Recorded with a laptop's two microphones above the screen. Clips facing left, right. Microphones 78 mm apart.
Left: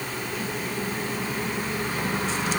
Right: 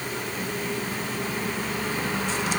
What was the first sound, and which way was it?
Only background noise.